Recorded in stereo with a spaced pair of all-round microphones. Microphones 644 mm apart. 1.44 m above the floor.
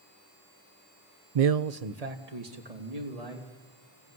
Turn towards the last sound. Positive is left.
turn(degrees=-85)